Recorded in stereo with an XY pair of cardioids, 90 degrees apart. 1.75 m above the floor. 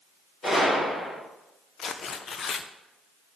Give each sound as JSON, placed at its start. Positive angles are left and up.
{"t": 0.4, "sound": "a gunshot", "azimuth_deg": 45, "distance_m": 3.5}
{"t": 1.8, "sound": "tearing paper", "azimuth_deg": 60, "distance_m": 0.6}